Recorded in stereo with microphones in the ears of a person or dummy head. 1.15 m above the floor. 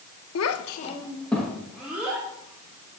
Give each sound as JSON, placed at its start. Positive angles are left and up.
{"t": 0.3, "sound": "a child speaking", "side_deg": 80, "distance_m": 0.7}